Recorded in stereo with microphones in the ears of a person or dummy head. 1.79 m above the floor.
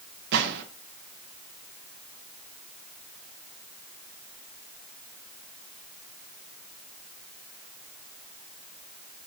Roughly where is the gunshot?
Right.